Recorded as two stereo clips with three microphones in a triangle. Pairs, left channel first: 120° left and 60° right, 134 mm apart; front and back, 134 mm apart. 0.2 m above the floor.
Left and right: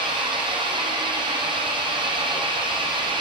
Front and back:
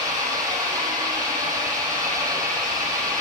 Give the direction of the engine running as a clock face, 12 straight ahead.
4 o'clock.